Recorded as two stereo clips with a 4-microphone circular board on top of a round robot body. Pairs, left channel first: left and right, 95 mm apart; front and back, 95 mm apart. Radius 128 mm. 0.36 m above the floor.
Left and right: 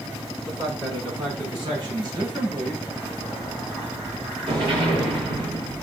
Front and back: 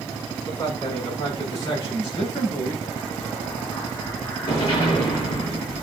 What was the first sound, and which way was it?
A man speaking, 50° right.